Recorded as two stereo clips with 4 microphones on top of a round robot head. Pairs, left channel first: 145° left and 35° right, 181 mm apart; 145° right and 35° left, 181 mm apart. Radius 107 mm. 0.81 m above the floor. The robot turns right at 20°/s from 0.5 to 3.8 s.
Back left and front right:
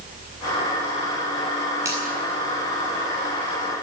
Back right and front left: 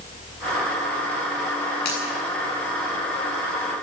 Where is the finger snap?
110° right, 8.5 m; by 2.0 s 105° right, 8.5 m.